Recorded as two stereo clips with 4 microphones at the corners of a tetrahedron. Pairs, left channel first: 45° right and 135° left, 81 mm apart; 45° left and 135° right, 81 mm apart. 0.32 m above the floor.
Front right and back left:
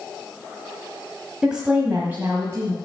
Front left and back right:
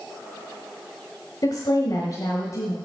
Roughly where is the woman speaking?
Ahead left.